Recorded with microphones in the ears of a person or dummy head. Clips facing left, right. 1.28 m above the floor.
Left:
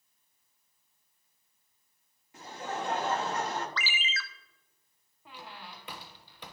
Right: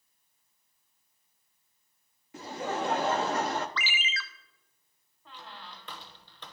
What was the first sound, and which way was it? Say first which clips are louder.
Laughter: right 4 dB; 55° right (ahead or behind).